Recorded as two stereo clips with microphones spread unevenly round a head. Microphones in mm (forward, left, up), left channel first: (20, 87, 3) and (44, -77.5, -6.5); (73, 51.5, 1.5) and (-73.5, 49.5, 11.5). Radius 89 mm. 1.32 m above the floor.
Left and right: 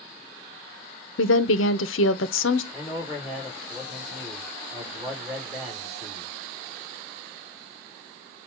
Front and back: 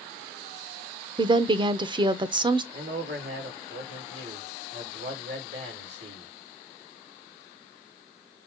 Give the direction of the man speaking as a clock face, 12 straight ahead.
6 o'clock.